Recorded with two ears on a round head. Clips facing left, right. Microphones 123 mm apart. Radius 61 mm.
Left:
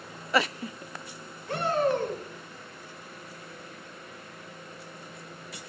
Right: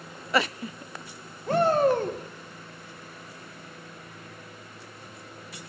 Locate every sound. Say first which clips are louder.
1.5 s a shout: right 5 dB; 35° right (ahead or behind), 1.8 m